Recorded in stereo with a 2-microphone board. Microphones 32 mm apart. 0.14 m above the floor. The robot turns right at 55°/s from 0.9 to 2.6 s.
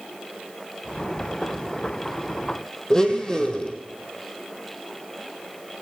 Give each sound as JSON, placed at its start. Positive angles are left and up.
{"t": 2.9, "sound": "a blender", "side_deg": 25, "distance_m": 3.0}